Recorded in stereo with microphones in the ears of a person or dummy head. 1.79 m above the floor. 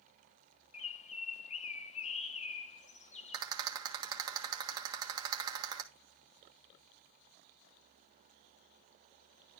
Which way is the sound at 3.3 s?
20° right (ahead or behind).